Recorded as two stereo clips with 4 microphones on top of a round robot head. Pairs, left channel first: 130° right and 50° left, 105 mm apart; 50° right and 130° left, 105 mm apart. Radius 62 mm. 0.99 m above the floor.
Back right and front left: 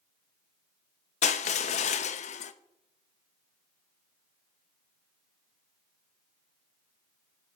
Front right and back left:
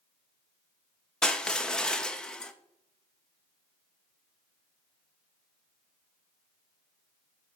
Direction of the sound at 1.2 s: 130° right.